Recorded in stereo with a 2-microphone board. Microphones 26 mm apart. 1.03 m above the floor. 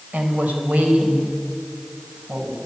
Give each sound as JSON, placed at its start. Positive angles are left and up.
{"t": 0.1, "sound": "a woman speaking", "side_deg": -85, "distance_m": 4.5}